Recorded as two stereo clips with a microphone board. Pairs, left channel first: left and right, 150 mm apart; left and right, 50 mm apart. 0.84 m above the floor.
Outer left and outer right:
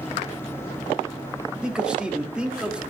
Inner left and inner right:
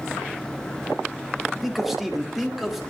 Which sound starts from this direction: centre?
A man speaking, at 1.6 s.